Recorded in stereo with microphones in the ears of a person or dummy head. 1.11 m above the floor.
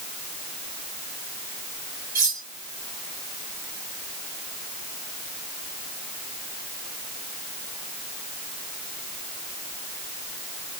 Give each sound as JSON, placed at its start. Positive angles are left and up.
{"t": 2.1, "sound": "cutlery clinking", "side_deg": -20, "distance_m": 3.5}